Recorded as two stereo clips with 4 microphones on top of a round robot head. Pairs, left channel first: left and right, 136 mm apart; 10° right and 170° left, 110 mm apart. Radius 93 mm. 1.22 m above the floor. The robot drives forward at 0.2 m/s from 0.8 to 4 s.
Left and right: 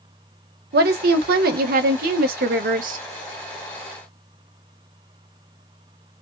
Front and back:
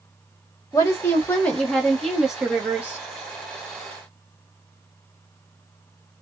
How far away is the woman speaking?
About 0.8 m.